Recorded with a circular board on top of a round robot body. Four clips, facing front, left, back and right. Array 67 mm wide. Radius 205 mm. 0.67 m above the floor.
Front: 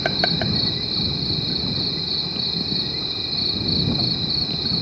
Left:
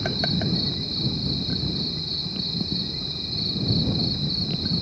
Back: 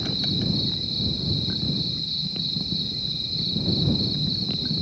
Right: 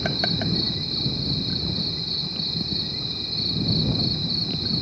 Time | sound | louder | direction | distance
0.0 | an insect | even, front 6 dB | 10° right | ?